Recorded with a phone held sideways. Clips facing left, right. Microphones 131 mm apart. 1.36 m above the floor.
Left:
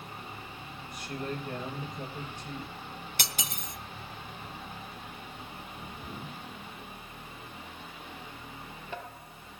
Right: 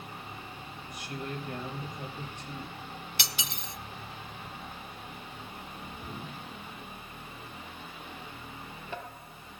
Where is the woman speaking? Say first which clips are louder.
Left 2 dB; 55° left (ahead or behind), 4.5 m.